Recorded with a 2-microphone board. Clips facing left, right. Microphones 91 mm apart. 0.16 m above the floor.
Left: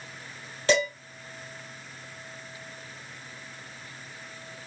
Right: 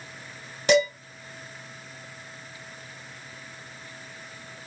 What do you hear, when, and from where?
0.7 s dishes clattering: 20° right (ahead or behind), 1.5 m